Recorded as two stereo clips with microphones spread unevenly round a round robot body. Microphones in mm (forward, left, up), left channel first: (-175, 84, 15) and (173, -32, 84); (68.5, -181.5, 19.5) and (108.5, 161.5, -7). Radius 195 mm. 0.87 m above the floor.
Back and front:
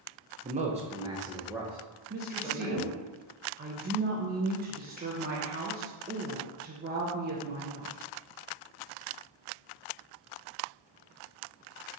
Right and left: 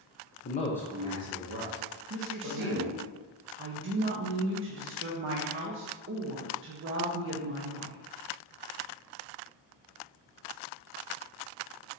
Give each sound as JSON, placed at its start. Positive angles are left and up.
{"t": 0.4, "sound": "a man speaking", "azimuth_deg": -90, "distance_m": 0.6}
{"t": 2.1, "sound": "a woman speaking", "azimuth_deg": 50, "distance_m": 0.6}